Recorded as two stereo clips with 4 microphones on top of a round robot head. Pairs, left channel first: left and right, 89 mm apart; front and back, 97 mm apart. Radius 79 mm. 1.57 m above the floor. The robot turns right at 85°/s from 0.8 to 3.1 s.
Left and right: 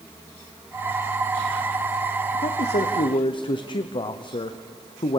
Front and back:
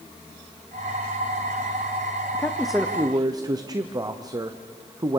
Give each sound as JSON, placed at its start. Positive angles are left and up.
{"t": 2.3, "sound": "a man speaking", "azimuth_deg": 60, "distance_m": 0.7}